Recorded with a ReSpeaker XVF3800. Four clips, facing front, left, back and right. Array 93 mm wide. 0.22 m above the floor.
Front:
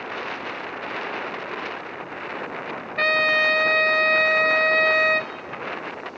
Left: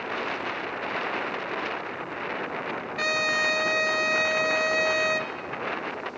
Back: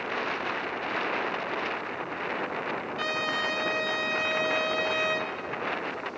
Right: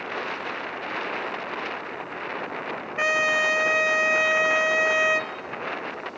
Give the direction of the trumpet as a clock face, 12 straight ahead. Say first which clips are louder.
Right 4 dB, front 12 dB; 1 o'clock.